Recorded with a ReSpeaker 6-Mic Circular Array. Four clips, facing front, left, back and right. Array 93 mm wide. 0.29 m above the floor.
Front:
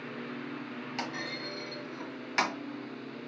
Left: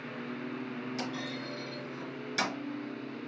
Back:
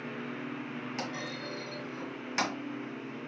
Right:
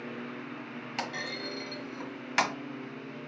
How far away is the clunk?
About 1.2 m.